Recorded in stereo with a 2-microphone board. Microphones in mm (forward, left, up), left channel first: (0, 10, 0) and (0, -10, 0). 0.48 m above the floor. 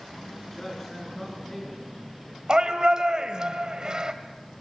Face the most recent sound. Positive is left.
turn(degrees=-40)  # may be behind; listen again after turning